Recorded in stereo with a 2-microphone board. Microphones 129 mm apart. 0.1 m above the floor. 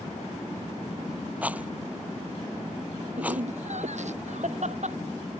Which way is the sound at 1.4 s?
10° right (ahead or behind).